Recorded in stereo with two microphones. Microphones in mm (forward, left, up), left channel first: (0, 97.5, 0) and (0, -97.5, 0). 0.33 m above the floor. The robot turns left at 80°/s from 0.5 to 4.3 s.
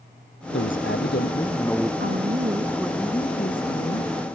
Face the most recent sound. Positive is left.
turn(degrees=65)